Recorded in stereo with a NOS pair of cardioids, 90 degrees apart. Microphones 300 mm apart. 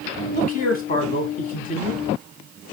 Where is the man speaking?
30° left, 1.7 m.